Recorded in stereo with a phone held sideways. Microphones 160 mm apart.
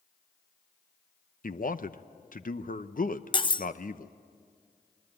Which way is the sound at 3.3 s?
30° left (ahead or behind).